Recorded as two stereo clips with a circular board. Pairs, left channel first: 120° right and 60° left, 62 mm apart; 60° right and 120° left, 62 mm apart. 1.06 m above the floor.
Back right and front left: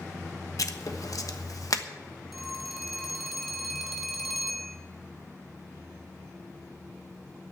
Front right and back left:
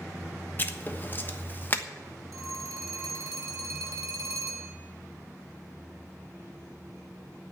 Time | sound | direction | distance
0.6 | writing | 115° right | 1.2 m
2.3 | a phone ringing | 150° left | 2.5 m